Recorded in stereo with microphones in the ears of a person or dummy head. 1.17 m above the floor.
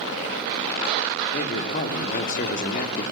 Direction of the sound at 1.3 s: 45° left (ahead or behind).